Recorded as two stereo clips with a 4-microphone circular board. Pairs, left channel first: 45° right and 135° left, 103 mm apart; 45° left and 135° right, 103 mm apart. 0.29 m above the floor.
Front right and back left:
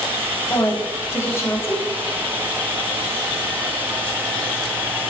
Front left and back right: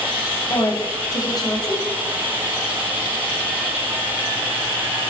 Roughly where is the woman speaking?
Ahead.